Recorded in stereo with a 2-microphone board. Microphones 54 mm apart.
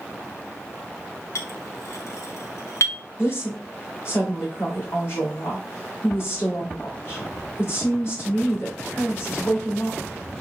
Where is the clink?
70° left (ahead or behind), 0.9 m.